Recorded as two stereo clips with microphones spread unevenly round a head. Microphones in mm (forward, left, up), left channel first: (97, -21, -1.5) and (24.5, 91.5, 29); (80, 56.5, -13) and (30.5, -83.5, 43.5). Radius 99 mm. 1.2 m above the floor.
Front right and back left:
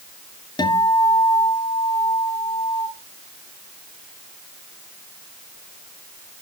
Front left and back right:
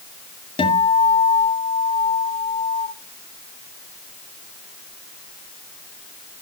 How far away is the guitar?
About 2.0 m.